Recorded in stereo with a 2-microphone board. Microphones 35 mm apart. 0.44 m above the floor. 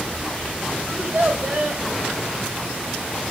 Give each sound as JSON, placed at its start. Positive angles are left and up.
{"t": 0.9, "sound": "a child speaking", "side_deg": -60, "distance_m": 1.3}